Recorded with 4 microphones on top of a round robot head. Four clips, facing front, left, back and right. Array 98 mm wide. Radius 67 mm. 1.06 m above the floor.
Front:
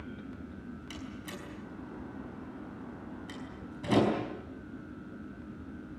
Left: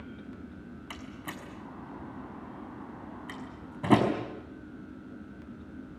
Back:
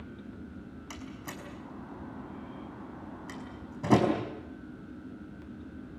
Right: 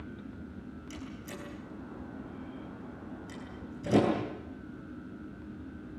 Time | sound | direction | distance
0.9 | a door slam | 115° left | 5 m